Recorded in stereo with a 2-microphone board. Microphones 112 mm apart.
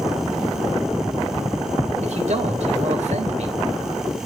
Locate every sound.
2.0 s a man speaking: 85° right, 3.5 m